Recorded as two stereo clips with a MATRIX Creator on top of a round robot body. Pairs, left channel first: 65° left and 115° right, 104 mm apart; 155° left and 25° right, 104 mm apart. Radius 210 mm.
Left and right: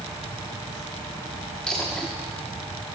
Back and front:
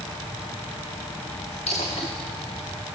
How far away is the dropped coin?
About 0.6 m.